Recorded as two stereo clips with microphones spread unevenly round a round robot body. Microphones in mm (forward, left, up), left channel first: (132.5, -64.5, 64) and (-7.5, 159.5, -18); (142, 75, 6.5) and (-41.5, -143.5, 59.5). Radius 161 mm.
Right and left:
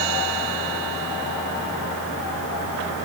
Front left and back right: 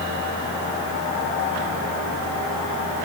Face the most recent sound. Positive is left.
No sound to turn to.